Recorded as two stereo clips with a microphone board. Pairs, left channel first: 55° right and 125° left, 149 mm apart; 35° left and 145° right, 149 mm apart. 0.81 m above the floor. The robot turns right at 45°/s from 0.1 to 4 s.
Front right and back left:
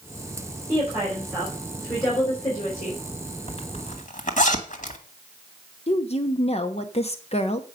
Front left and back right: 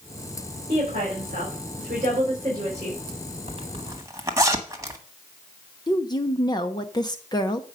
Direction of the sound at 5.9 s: 20° right.